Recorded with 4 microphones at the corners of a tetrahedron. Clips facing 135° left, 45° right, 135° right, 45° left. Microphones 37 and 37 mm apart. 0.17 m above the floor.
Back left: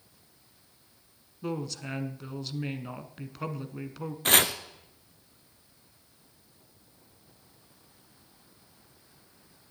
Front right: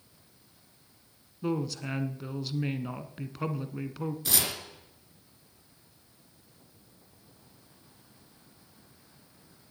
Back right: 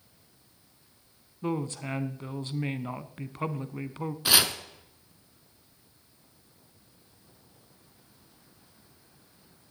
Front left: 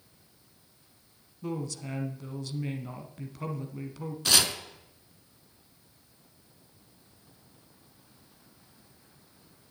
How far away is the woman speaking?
About 1.3 m.